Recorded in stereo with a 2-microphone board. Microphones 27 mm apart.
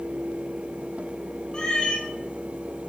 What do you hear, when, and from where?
1.5 s a cat meowing: 30° left (ahead or behind), 1.5 m